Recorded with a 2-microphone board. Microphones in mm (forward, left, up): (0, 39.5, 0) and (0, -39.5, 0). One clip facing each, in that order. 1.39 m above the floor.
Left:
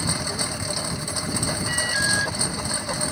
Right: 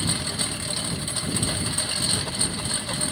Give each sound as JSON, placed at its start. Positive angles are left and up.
{"t": 0.0, "sound": "a lawn mower", "side_deg": 15}
{"t": 1.7, "sound": "an alarm", "side_deg": 85}